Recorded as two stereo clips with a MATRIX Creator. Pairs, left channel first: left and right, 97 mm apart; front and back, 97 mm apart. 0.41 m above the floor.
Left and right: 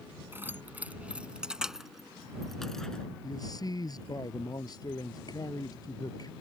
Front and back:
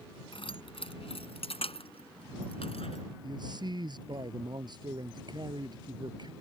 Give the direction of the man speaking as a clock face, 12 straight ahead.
7 o'clock.